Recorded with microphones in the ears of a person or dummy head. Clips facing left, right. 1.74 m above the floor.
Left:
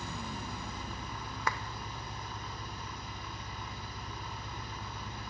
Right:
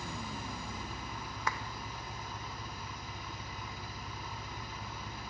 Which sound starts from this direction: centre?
An engine running, at 0.0 s.